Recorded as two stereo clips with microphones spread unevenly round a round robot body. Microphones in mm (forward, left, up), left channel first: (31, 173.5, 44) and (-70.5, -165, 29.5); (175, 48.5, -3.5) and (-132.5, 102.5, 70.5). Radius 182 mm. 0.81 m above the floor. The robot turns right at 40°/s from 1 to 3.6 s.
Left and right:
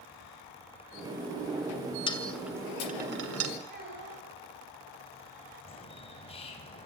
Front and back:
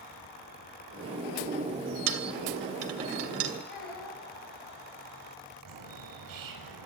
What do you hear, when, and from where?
2.1 s a dropped coin: 150° left, 2 m; by 3.5 s 150° right, 2 m
3.7 s a child speaking: 40° right, 5.5 m
5.7 s a bird: 150° left, 4.5 m